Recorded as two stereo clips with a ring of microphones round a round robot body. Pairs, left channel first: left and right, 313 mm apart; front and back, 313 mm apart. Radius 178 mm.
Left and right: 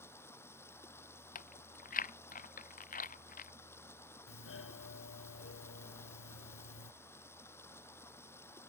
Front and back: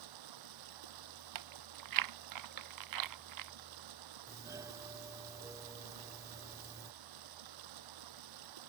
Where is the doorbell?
105° left.